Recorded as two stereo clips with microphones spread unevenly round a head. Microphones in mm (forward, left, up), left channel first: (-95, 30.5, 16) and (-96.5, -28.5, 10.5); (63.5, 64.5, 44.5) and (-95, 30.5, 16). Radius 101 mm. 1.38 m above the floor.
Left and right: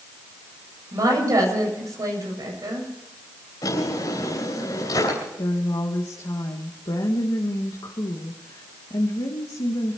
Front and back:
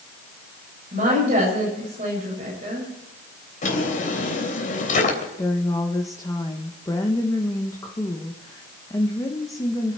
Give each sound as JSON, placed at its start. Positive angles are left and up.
{"t": 0.9, "sound": "a woman speaking", "azimuth_deg": -110, "distance_m": 8.0}
{"t": 3.6, "sound": "a drawer", "azimuth_deg": 45, "distance_m": 3.5}
{"t": 5.4, "sound": "a woman speaking", "azimuth_deg": 85, "distance_m": 1.7}